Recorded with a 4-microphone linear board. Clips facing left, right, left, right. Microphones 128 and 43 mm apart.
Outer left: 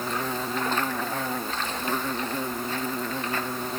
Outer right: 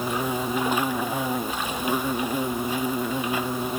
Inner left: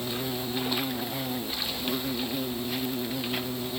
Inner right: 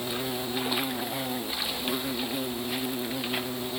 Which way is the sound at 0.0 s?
10° right (ahead or behind).